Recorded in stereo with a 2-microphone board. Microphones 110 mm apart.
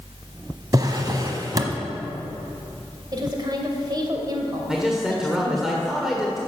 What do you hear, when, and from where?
0.7 s a drawer: 40° right (ahead or behind), 0.9 m
3.1 s a woman speaking: 40° right (ahead or behind), 1.8 m
4.7 s a man speaking: 5° right (ahead or behind), 1.4 m